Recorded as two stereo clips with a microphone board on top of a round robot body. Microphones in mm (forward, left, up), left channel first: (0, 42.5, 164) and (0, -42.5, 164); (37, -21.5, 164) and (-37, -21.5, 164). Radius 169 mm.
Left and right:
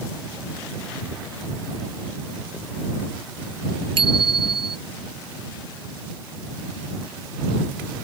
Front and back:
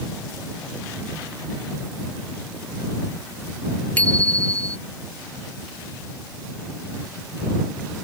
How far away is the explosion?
No explosion in this recording.